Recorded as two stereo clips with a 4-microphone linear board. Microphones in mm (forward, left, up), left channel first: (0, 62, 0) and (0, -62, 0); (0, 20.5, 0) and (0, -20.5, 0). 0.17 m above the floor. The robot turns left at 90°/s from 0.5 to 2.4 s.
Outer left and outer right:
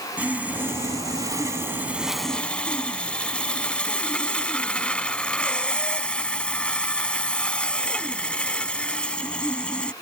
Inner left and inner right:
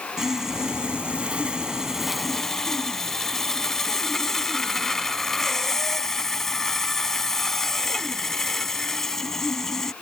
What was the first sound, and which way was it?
Sawing, 15° right (ahead or behind).